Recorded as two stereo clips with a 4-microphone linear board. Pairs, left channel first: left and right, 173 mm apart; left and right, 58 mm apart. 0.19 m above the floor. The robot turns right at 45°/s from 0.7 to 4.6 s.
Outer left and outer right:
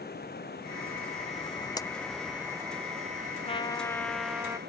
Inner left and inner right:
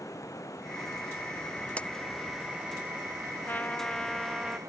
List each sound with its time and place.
0.0 s running water: 115° left; by 4.7 s 70° right
1.8 s a clap: 20° left (ahead or behind); by 1.9 s 15° left (ahead or behind)
3.5 s a trumpet: 145° left; by 4.6 s 160° right